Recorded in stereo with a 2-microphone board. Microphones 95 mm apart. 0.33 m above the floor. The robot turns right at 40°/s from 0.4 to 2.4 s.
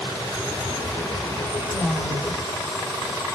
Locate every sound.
1.7 s a woman speaking: 30° right (ahead or behind), 3.5 m; by 2.4 s 5° right (ahead or behind), 3.5 m